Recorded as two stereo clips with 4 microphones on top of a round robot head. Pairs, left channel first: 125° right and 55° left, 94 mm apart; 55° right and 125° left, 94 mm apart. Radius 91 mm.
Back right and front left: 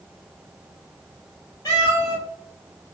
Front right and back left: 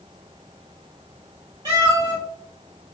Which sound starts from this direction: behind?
A cat meowing, at 1.6 s.